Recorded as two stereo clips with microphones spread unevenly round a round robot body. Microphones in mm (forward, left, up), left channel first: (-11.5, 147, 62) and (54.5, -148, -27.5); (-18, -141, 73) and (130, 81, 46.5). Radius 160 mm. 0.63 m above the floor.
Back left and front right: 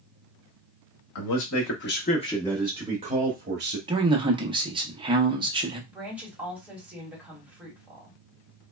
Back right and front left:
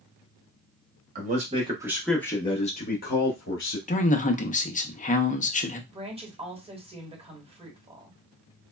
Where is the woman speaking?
5° right, 1.5 m.